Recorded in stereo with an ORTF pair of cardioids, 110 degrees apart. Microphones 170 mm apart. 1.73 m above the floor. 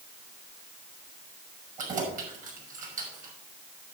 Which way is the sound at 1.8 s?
50° right.